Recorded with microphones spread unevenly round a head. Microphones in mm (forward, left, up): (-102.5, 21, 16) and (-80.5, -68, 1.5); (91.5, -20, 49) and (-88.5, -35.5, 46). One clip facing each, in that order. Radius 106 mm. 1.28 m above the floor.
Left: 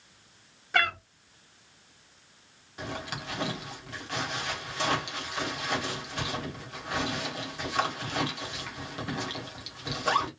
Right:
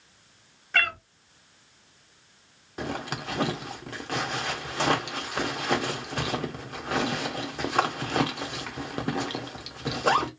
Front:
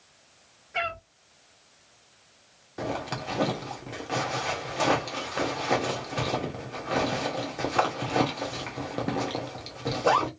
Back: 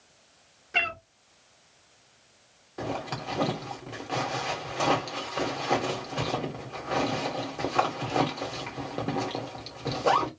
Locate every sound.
0.7 s a cat meowing: 165° left, 0.9 m
2.8 s a zipper: 75° right, 0.7 m